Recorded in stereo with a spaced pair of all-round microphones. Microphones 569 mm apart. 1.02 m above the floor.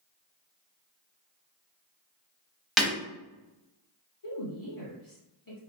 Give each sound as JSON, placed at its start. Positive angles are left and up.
{"t": 2.8, "sound": "breaking glass", "side_deg": 0, "distance_m": 0.8}
{"t": 4.2, "sound": "a woman speaking", "side_deg": 35, "distance_m": 1.3}